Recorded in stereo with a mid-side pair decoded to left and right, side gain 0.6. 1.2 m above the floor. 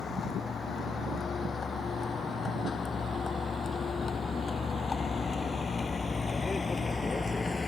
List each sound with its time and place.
0.0 s a vehicle: 30° left; by 7.7 s 20° left